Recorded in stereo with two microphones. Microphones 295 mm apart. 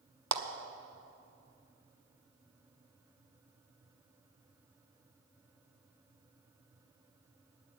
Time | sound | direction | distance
0.3 | a clap | 70° right (ahead or behind) | 0.8 m